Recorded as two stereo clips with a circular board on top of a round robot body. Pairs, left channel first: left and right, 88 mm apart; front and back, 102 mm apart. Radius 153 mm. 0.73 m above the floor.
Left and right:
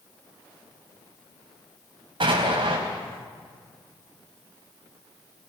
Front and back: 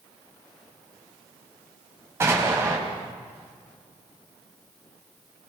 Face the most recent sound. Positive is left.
turn(degrees=-115)